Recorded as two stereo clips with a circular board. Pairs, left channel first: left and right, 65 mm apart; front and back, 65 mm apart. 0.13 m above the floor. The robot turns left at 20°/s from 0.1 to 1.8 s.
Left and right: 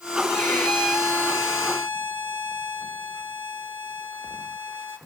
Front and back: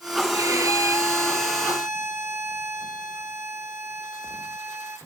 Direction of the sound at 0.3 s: 155° left.